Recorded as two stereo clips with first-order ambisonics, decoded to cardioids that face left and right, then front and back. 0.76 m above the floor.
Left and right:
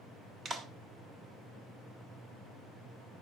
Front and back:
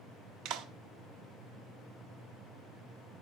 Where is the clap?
155° right, 1.1 m.